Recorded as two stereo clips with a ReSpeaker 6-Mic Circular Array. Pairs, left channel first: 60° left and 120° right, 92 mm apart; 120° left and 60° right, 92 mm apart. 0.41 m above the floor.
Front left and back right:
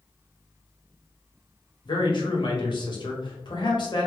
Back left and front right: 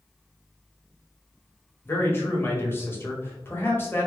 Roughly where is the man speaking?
Ahead left.